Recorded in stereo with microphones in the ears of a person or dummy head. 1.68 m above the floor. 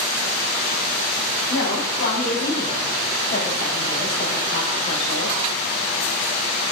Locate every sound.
1.5 s a woman speaking: 70° left (ahead or behind), 5 m; by 5.3 s 55° left (ahead or behind), 3.5 m